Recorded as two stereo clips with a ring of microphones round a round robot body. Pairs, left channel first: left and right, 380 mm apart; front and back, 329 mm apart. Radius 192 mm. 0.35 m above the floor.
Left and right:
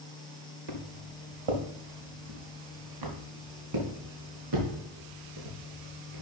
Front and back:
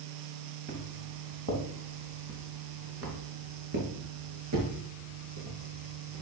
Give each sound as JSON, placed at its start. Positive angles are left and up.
{"t": 0.7, "sound": "footsteps", "azimuth_deg": -115, "distance_m": 2.5}